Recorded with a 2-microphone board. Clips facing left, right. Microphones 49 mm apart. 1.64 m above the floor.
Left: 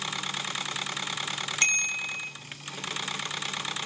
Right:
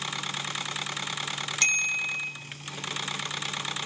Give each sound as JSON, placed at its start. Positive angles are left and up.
{"t": 1.6, "sound": "a bicycle bell", "side_deg": 30, "distance_m": 2.0}